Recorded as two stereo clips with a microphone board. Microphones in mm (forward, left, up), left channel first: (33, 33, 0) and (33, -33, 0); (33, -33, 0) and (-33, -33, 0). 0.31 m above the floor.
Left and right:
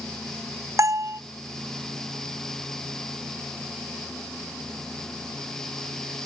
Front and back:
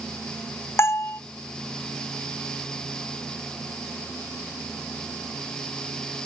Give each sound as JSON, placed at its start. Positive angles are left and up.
{"t": 0.8, "sound": "a bell", "azimuth_deg": -50}